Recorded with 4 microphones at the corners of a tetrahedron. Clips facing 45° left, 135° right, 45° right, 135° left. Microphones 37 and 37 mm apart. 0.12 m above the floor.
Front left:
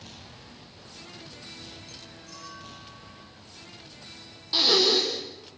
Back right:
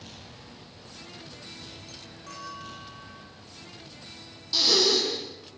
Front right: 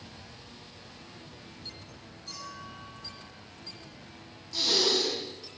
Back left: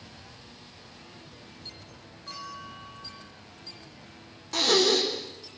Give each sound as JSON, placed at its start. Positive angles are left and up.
{"t": 2.3, "sound": "a clink", "azimuth_deg": -165, "distance_m": 9.0}
{"t": 4.5, "sound": "breathing", "azimuth_deg": 105, "distance_m": 6.0}